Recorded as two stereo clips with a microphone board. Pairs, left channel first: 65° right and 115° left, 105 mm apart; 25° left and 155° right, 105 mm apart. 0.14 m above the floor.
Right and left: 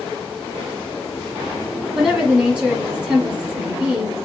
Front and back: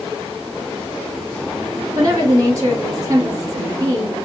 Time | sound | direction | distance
1.9 | a woman speaking | 175° right | 1.4 m